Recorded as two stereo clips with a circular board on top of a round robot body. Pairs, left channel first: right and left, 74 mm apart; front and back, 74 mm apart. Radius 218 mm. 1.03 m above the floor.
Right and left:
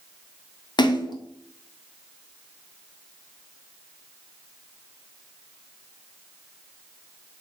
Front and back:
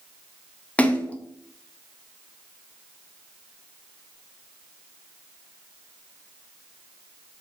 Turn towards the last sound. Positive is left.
turn(degrees=-70)